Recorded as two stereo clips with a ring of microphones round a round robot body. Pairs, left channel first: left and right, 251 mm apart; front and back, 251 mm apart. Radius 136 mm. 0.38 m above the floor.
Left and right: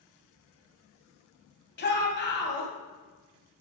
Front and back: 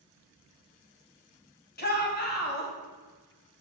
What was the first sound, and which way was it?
A shout, 45° left.